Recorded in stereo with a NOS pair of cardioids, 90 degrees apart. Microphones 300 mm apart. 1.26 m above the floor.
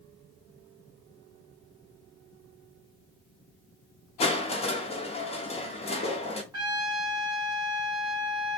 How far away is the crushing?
About 0.7 m.